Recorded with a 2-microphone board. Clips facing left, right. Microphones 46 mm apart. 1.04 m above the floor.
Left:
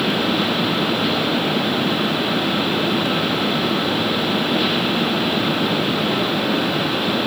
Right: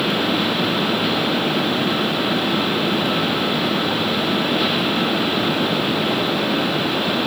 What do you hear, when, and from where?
Only background noise.